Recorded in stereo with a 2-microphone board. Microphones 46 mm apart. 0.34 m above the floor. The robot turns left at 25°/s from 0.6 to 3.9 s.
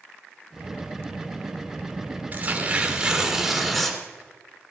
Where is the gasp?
I don't hear a gasp.